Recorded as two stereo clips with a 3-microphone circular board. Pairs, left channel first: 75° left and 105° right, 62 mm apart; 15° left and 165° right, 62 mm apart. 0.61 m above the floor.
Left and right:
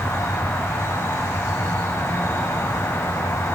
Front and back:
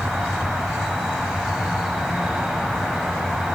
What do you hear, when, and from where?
0.0 s an insect: 115° left, 2.5 m